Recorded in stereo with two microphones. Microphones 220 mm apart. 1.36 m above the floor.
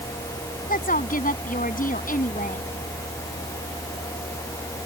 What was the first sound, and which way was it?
A woman speaking, 40° left (ahead or behind).